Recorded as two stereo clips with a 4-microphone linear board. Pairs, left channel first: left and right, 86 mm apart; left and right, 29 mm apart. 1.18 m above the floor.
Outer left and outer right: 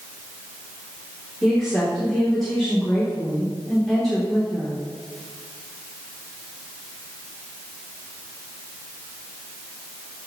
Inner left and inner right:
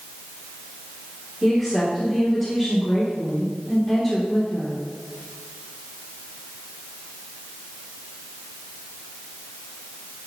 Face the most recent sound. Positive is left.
turn(degrees=5)  # may be behind; listen again after turning